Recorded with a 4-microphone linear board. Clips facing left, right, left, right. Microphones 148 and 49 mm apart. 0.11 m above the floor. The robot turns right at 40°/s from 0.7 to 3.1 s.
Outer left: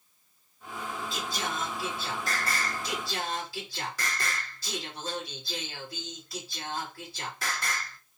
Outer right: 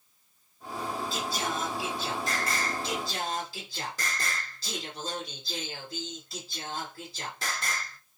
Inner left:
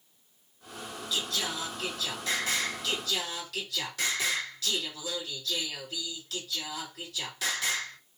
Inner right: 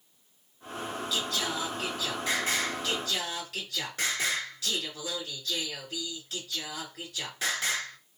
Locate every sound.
1.1 s singing: centre (ahead or behind), 1.7 m; by 8.0 s 30° right (ahead or behind), 1.7 m